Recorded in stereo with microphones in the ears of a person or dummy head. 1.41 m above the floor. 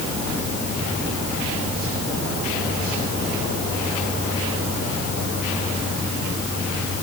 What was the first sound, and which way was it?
Only background noise.